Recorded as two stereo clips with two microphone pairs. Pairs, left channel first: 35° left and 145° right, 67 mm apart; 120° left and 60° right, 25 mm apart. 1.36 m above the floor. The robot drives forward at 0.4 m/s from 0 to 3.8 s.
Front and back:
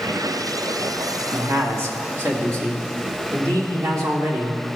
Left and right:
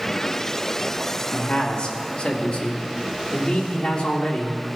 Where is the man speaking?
165° left, 1.9 m; by 4.6 s 170° left, 3 m.